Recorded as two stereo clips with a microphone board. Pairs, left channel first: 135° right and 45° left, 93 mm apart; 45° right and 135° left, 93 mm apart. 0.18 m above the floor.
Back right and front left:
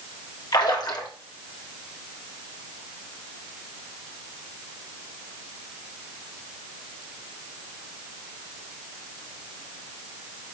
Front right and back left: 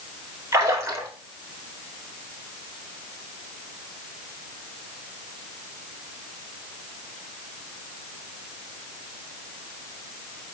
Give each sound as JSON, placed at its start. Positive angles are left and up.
{"t": 0.5, "sound": "a splash", "azimuth_deg": -170, "distance_m": 1.0}